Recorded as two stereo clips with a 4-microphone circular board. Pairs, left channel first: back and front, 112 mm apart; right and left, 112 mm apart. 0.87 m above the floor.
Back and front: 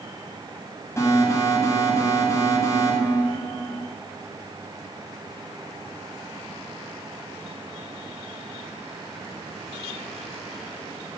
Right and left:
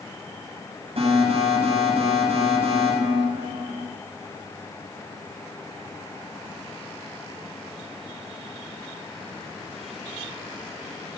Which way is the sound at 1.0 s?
115° left.